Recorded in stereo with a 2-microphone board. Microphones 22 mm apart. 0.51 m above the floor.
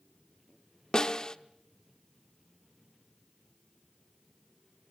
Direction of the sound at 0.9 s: 30° left (ahead or behind).